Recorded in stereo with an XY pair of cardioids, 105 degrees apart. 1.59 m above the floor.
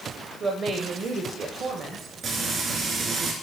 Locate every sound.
0.4 s a woman speaking: 50° right, 1.0 m
2.2 s frying: 55° right, 2 m